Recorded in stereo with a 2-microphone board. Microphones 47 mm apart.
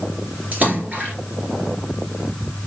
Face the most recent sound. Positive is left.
turn(degrees=-30)  # may be behind; listen again after turning